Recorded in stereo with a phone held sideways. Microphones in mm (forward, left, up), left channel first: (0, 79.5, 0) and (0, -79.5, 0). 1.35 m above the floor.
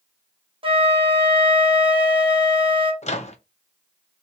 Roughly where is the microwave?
Left.